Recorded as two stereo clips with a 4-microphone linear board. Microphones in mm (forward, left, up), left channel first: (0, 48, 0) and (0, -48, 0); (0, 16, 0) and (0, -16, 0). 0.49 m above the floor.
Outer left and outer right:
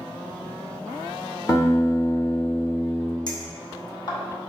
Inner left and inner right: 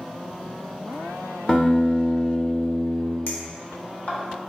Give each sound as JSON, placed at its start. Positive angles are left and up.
{"t": 1.5, "sound": "a guitar", "side_deg": 35, "distance_m": 0.8}
{"t": 3.3, "sound": "a clink", "side_deg": 50, "distance_m": 0.8}